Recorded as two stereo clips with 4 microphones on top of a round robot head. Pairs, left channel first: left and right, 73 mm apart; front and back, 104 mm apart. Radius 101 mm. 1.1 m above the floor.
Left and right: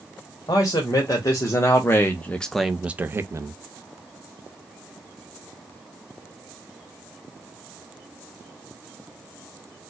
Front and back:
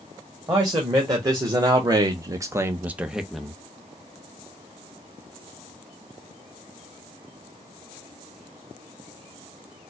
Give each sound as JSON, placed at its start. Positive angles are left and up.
{"t": 0.5, "sound": "a man speaking", "azimuth_deg": 130, "distance_m": 1.4}